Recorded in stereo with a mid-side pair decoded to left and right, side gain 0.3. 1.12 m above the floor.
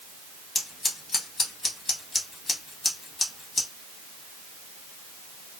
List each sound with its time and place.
0.6 s scissors: 65° left, 1.2 m